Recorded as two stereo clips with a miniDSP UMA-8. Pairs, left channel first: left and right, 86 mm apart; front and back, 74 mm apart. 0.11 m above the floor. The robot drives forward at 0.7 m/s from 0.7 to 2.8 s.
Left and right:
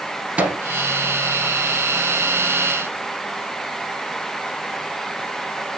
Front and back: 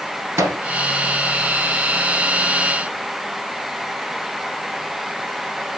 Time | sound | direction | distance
0.4 | a microwave | 150° right | 1.4 m